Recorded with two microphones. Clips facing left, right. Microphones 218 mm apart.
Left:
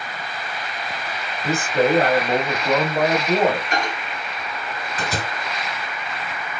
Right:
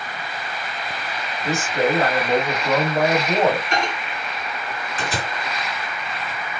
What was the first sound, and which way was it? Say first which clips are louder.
A man speaking: left 2 dB; 45° left (ahead or behind).